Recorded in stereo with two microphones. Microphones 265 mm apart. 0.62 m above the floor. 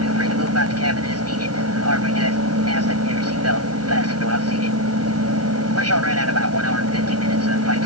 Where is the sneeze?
No sneeze in this recording.